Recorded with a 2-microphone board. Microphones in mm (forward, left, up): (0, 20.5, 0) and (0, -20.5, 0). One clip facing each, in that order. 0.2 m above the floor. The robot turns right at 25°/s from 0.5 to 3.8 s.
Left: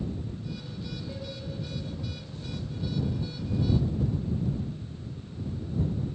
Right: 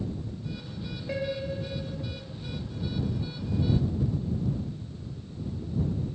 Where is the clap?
No clap in this recording.